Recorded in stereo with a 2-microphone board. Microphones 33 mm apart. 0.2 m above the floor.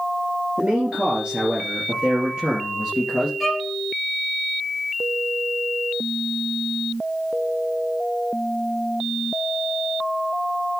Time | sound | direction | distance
0.6 | a man speaking | 45° right (ahead or behind) | 3.5 m
3.4 | a violin | 5° right (ahead or behind) | 2.5 m